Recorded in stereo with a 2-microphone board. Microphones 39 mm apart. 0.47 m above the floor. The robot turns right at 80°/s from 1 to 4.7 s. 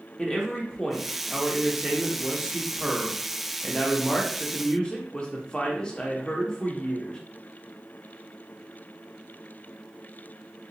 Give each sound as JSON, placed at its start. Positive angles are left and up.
{"t": 0.2, "sound": "a man speaking", "side_deg": 5, "distance_m": 0.8}